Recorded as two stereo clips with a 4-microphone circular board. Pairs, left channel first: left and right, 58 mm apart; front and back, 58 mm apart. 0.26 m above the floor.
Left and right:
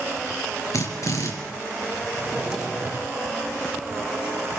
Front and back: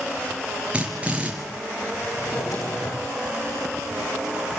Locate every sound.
0.7 s a drill: 110° left, 4.5 m
2.1 s a drawer: 15° right, 6.5 m